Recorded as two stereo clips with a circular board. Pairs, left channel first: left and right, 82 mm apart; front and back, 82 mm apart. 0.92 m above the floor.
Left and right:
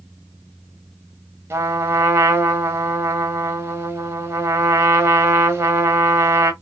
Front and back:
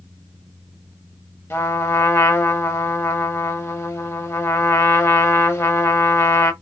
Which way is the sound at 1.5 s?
45° right.